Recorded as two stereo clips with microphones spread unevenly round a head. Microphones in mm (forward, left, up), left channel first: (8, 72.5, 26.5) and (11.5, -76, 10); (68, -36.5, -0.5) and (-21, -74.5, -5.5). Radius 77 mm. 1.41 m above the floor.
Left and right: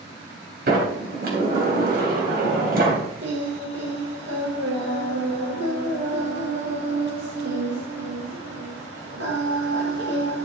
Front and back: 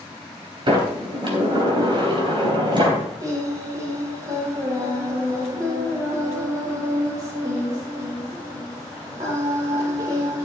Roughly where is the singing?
Right.